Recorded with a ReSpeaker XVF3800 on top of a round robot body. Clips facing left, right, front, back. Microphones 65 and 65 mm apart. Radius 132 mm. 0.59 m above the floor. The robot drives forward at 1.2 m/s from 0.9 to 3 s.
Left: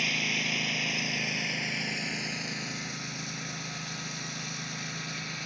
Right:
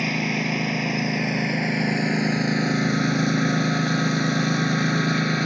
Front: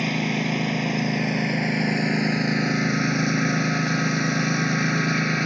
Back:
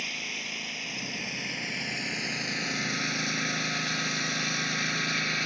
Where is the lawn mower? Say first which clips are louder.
Right 7 dB, front 13 dB; 35° right; by 5.5 s 60° right.